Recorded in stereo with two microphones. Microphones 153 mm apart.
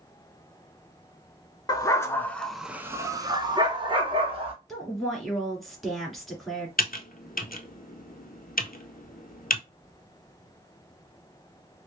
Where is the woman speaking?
Centre (ahead or behind), 1.8 m.